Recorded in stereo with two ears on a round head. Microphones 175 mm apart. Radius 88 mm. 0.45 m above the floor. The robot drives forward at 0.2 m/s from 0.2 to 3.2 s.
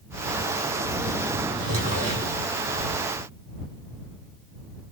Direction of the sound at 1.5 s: 20° right (ahead or behind).